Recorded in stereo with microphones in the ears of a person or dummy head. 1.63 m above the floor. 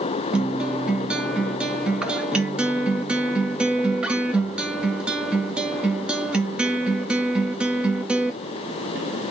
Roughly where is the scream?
No scream in this recording.